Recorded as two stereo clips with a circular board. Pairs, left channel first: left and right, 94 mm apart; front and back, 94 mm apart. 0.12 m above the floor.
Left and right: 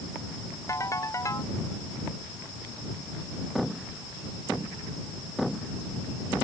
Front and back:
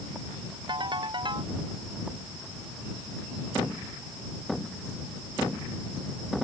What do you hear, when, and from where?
0.7 s a ringtone: 145° left